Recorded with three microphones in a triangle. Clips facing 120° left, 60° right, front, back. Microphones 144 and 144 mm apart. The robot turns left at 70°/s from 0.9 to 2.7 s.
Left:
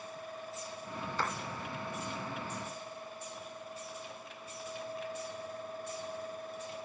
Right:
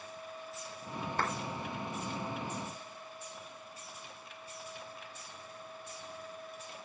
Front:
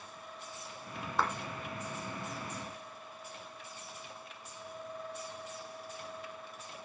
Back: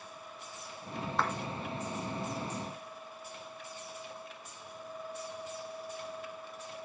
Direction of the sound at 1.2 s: 85° right.